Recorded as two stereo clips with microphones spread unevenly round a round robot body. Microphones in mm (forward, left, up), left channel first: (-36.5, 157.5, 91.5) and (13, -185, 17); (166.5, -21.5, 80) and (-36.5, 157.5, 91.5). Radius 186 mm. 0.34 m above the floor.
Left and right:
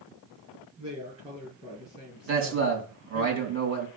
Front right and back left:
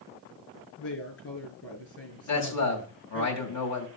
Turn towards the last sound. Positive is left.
turn(degrees=-35)